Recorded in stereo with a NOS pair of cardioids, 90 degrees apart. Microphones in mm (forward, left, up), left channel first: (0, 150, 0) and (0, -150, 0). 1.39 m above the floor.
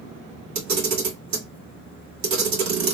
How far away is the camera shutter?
About 1.7 m.